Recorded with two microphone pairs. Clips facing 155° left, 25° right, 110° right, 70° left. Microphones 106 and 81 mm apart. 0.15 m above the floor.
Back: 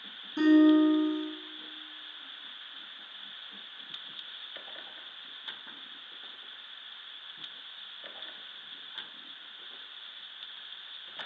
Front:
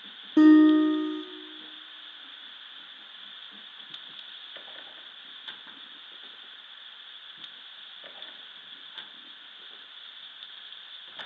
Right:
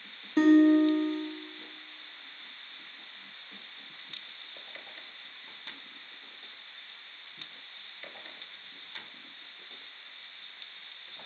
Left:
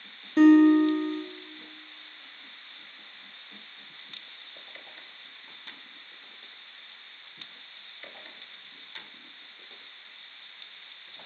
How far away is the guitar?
About 0.7 m.